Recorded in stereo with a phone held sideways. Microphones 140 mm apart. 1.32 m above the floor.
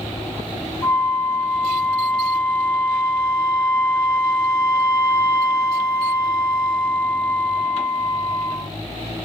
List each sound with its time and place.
0.8 s a flute: 30° left (ahead or behind), 5 m